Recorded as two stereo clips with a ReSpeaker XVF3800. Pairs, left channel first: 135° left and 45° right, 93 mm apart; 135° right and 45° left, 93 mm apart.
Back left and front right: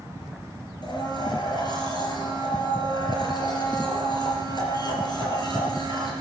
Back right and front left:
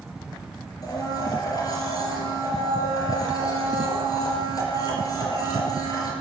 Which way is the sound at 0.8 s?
175° left.